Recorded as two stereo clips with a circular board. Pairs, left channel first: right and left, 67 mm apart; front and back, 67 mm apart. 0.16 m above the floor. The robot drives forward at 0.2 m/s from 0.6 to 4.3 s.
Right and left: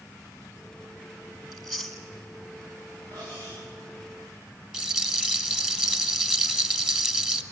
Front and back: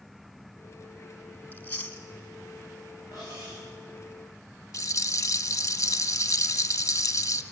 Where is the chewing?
5° left, 1.7 m.